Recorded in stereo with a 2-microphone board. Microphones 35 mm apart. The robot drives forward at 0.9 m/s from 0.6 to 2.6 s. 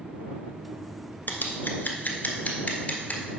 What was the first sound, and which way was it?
Scissors, 70° left (ahead or behind).